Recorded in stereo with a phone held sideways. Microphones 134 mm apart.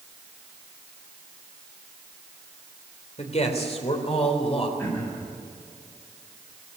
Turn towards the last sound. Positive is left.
turn(degrees=15)  # may be behind; listen again after turning